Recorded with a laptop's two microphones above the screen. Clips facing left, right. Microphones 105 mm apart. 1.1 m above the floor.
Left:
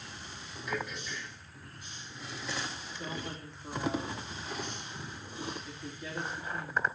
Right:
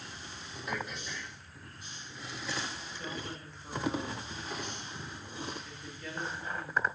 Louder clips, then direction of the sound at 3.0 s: Left 2 dB; 15° left (ahead or behind).